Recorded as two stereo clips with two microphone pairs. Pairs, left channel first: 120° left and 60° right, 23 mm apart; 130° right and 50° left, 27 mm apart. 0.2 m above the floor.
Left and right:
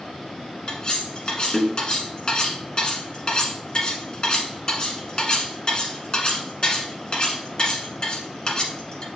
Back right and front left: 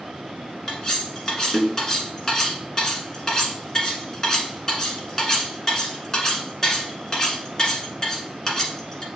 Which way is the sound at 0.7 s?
160° left.